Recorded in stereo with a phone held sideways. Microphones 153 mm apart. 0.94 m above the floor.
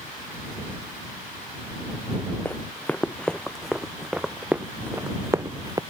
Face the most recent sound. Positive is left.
turn(degrees=-25)  # may be behind; listen again after turning